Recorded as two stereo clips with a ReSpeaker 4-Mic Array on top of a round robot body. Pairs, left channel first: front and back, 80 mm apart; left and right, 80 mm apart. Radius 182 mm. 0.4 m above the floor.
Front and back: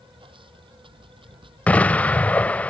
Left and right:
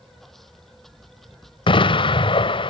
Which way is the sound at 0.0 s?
Straight behind.